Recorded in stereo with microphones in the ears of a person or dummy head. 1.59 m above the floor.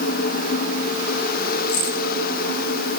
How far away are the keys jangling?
About 7.5 m.